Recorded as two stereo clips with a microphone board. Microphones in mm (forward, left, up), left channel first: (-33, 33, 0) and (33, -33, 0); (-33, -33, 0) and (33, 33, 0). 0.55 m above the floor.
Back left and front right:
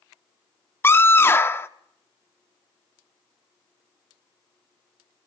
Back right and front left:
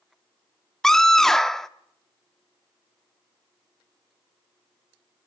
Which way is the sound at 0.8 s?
145° left.